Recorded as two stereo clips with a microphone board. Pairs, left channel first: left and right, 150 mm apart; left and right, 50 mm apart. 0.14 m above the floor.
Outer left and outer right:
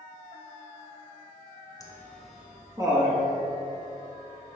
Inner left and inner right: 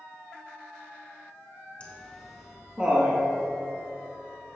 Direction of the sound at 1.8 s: 25° left (ahead or behind).